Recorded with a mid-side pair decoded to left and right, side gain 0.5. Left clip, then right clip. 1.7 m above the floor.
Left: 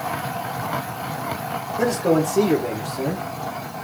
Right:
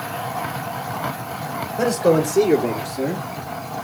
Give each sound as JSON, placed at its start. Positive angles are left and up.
{"t": 1.8, "sound": "a man speaking", "azimuth_deg": -40, "distance_m": 1.5}